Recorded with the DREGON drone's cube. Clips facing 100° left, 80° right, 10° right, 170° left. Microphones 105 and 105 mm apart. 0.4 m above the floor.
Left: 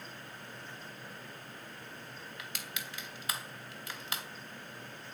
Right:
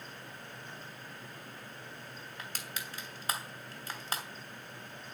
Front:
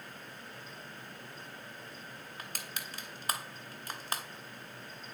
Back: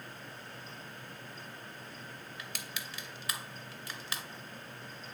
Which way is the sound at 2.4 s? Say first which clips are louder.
Right 3 dB, front 1 dB; 40° right.